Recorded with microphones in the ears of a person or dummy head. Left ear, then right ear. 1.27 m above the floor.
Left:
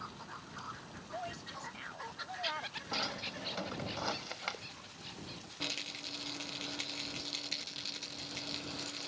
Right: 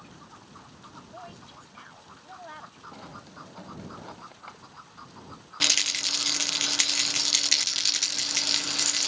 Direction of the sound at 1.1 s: 15° left (ahead or behind).